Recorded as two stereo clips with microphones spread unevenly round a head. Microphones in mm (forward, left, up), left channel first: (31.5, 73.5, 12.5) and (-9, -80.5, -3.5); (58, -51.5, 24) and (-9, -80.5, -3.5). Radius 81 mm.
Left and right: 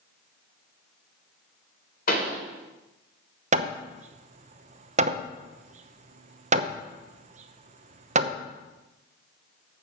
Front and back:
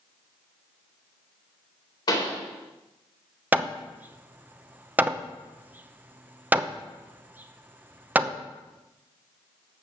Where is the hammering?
75° right, 0.8 m.